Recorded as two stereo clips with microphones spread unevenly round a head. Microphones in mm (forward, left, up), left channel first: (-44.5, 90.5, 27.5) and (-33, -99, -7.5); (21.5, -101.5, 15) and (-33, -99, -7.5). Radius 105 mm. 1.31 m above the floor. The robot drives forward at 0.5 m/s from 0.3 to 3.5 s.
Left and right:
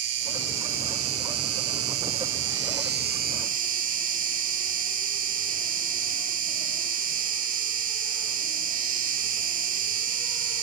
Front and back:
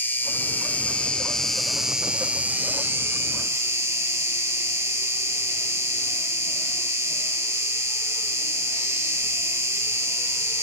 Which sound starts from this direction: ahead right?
An insect, at 0.0 s.